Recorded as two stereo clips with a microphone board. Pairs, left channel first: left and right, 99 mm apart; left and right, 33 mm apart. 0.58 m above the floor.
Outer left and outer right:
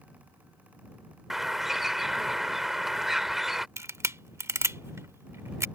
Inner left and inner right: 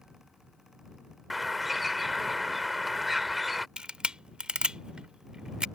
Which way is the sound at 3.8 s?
30° right (ahead or behind).